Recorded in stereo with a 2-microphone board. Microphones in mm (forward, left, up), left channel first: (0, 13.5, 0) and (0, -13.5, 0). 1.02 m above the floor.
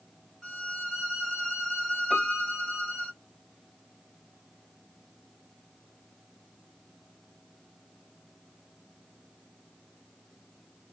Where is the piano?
Centre (ahead or behind), 1.0 m.